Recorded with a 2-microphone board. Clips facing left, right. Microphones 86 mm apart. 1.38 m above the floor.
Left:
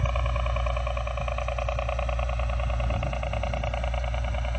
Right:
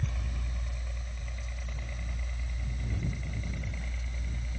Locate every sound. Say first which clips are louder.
0.0 s a helicopter: left 11 dB; 75° left (ahead or behind); by 4.6 s 70° left (ahead or behind)